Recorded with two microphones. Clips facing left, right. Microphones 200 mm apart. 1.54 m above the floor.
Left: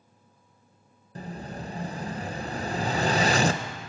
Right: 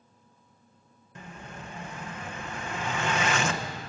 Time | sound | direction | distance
1.1 | an explosion | 35° left (ahead or behind) | 0.8 m